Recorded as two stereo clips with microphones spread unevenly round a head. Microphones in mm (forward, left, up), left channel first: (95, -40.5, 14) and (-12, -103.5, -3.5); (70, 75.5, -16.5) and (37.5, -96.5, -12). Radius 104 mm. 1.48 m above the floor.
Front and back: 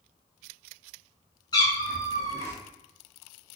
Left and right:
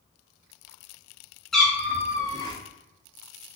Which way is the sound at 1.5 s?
10° right.